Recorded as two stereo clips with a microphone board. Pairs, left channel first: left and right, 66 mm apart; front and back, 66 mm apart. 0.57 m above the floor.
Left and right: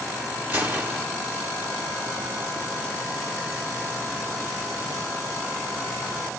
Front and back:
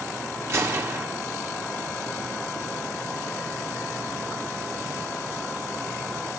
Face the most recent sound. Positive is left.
turn(degrees=-140)